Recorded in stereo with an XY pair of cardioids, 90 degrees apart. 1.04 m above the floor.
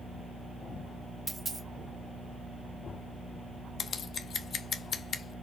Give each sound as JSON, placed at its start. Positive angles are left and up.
{"t": 1.3, "sound": "a dropped coin", "azimuth_deg": -25, "distance_m": 1.0}
{"t": 3.8, "sound": "scissors", "azimuth_deg": 60, "distance_m": 0.5}